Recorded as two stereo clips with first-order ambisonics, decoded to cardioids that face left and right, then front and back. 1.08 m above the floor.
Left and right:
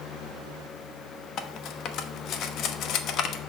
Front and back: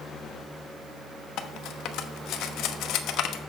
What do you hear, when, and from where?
1.4 s cutlery clinking: 45° left, 0.8 m